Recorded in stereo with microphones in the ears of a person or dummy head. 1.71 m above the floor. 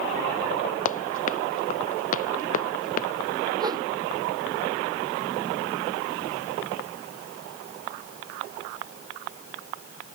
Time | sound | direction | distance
0.8 | running footsteps | 45° left (ahead or behind) | ?
3.6 | a whoosh | 20° right (ahead or behind) | ?